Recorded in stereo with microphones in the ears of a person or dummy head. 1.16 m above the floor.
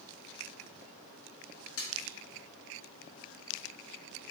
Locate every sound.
1.8 s a splash: 85° left, 1.7 m